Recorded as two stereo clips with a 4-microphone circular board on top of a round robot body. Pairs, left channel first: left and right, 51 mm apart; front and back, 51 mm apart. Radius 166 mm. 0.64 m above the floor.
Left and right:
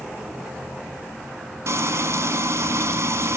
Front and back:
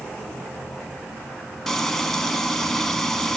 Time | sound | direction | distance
1.7 | frying | 85° right | 1.8 m